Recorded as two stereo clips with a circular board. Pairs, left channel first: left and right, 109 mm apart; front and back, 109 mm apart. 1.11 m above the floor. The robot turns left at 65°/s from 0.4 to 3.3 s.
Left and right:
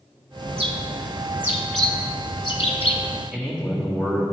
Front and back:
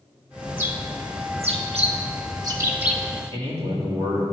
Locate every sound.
0.5 s a bird: 105° right, 0.9 m; by 3.0 s 90° left, 0.9 m
3.3 s a man speaking: 170° right, 1.9 m